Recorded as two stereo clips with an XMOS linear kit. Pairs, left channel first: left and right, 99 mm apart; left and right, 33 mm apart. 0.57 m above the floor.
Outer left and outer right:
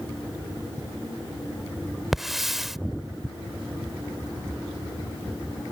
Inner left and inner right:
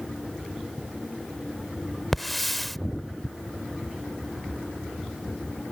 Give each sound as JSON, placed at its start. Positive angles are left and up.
{"t": 2.1, "sound": "a hiss", "side_deg": -5}